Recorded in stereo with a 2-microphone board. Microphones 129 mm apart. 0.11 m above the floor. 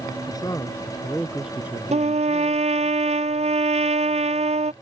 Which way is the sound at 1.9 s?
60° right (ahead or behind).